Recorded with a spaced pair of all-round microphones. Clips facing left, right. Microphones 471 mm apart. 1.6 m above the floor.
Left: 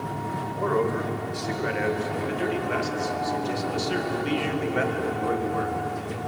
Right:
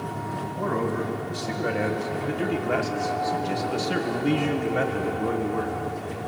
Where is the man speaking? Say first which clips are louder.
Left 2 dB; 50° right (ahead or behind), 2.5 m; by 5.8 s 40° right (ahead or behind), 2.0 m.